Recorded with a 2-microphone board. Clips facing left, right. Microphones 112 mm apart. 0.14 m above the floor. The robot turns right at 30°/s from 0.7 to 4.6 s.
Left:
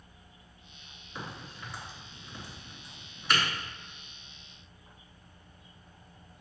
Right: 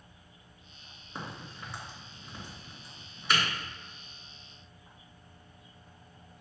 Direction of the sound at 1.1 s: 35° right (ahead or behind).